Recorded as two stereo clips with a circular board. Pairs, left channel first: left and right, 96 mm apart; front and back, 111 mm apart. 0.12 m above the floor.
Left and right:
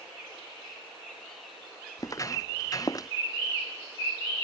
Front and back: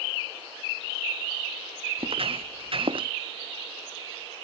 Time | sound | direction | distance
2.0 | footsteps | 145° left | ?